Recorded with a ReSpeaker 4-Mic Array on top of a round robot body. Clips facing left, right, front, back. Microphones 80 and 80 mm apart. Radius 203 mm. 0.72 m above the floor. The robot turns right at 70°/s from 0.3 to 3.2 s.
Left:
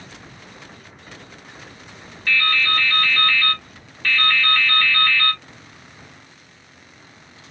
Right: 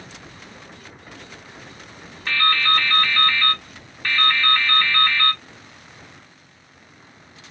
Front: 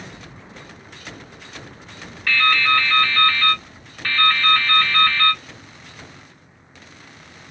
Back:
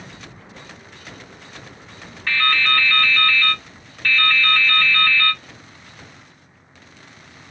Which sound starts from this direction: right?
Dripping, at 2.3 s.